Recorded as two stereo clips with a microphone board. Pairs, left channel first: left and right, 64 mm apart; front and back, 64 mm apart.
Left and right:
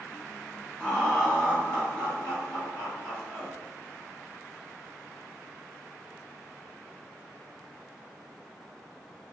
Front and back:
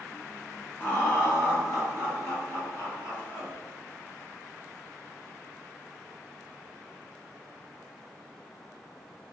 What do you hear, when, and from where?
0.8 s laughter: 30° left, 1.3 m; by 3.5 s 25° left, 3 m